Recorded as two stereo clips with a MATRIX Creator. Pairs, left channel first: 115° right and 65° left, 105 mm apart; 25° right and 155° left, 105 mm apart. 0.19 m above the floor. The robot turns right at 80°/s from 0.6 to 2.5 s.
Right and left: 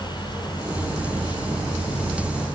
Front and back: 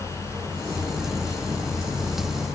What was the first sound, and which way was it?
Only background noise.